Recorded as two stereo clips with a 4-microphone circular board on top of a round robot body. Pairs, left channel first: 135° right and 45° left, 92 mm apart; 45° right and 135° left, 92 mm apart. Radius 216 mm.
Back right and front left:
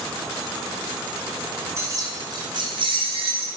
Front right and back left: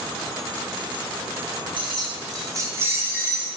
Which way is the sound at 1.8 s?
105° left.